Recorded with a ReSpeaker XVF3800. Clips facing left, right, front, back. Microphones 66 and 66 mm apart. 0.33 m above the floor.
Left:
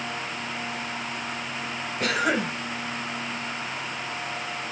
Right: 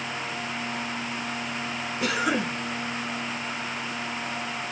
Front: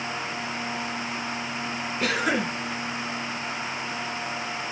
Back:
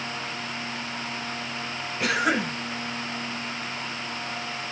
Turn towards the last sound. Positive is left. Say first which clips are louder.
# left 1 dB, back 1 dB
turn(degrees=110)